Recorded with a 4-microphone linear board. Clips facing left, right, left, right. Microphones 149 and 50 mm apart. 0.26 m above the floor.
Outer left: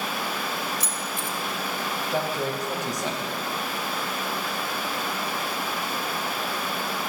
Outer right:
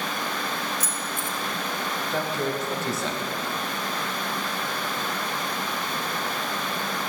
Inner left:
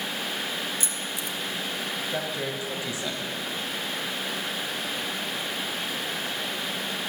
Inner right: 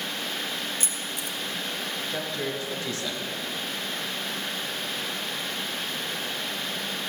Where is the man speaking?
15° left (ahead or behind), 1.5 m.